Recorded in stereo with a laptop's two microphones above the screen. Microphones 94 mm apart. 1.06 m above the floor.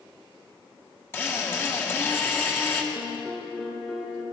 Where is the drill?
25° left (ahead or behind), 1.7 m.